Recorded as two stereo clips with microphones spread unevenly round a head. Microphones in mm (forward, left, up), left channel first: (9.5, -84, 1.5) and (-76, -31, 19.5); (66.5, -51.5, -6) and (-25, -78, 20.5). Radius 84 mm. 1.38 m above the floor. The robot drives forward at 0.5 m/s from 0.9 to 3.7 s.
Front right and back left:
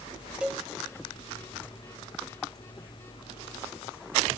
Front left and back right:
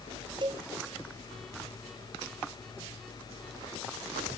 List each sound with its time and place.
0.4 s a cowbell: 135° right, 0.9 m